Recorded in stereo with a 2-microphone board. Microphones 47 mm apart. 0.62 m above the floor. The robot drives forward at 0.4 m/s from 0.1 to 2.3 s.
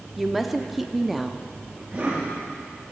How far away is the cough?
About 4 m.